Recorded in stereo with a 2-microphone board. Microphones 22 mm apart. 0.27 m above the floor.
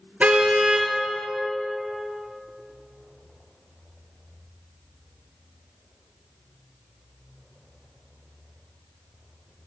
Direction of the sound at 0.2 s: 80° right.